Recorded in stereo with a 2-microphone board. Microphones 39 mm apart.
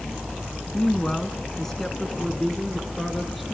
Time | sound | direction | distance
0.7 | a woman speaking | 15° left (ahead or behind) | 1.3 m